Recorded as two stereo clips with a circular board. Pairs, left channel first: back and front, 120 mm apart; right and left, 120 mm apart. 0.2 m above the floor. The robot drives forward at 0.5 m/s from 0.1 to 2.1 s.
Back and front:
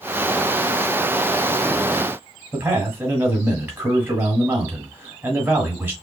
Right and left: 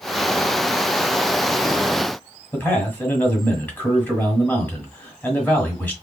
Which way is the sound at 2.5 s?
45° right.